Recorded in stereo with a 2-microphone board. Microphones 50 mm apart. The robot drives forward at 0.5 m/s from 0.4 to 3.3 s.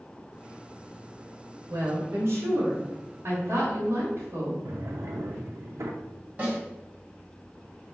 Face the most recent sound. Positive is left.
turn(degrees=-30)  # may be behind; listen again after turning